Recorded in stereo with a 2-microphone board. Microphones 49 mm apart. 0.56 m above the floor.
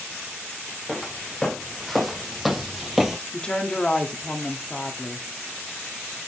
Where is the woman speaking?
20° left (ahead or behind), 1.1 m.